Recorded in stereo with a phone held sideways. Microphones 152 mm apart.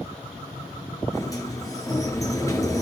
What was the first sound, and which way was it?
A sliding door, 20° left (ahead or behind).